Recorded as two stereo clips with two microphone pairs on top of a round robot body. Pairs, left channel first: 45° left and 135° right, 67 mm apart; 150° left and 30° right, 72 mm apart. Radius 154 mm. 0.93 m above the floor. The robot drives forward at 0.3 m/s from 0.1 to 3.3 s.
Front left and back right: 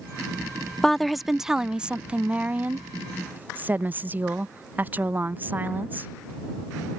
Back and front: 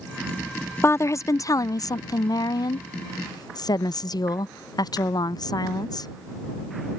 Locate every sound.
0.8 s a woman speaking: 115° left; by 6.1 s 160° left